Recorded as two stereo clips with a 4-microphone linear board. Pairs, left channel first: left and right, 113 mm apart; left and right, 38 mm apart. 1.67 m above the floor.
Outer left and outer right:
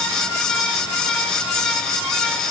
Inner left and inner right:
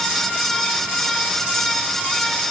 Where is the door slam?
I don't hear a door slam.